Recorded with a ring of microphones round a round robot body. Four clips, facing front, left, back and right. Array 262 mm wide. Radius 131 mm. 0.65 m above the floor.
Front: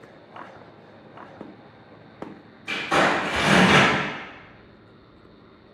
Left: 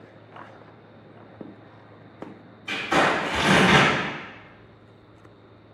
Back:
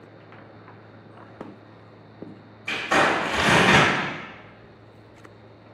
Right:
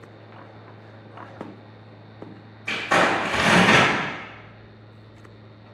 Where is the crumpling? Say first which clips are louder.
Right 1 dB, even; 95° right, 1.8 m.